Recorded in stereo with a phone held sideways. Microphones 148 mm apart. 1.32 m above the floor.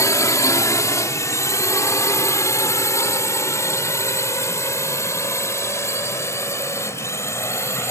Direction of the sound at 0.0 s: 20° left (ahead or behind).